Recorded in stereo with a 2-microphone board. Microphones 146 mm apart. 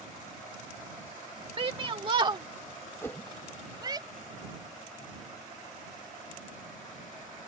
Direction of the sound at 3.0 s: 15° left (ahead or behind).